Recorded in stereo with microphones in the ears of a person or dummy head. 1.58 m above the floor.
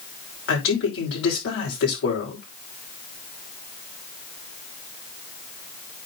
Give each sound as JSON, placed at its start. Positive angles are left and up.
{"t": 0.5, "sound": "a man speaking", "side_deg": 65, "distance_m": 6.0}